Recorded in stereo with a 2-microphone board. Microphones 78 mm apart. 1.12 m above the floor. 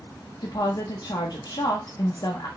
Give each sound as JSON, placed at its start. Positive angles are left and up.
{"t": 0.4, "sound": "a woman speaking", "side_deg": 60, "distance_m": 0.9}